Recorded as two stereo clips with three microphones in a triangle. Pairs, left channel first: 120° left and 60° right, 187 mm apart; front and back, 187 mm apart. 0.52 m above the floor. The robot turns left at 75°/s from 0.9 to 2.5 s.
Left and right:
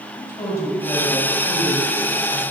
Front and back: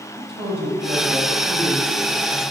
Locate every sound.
0.2 s a woman speaking: 165° right, 2.5 m; by 2.4 s 80° left, 2.5 m